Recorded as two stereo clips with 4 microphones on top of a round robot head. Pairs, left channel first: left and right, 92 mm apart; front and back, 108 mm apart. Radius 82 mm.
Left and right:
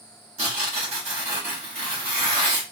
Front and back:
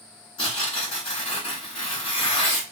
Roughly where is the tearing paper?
Ahead right.